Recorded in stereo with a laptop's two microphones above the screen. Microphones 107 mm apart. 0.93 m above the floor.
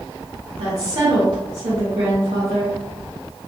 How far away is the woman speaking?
About 1.8 m.